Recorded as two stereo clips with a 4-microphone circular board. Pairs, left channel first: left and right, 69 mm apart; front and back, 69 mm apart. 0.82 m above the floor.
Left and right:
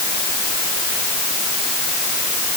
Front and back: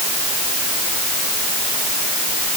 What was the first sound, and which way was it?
Only background noise.